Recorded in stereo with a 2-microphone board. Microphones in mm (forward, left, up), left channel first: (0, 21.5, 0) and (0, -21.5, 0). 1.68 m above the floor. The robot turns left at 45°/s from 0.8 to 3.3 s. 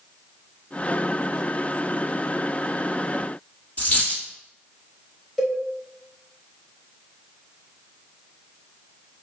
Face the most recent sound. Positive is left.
turn(degrees=0)  # may be behind; listen again after turning